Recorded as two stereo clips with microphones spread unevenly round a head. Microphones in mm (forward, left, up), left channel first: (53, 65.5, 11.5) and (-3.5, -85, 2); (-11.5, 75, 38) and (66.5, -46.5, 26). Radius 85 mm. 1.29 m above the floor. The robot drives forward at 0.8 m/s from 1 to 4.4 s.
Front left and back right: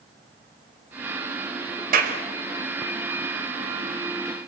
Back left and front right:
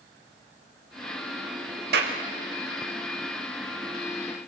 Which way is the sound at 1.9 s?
80° right.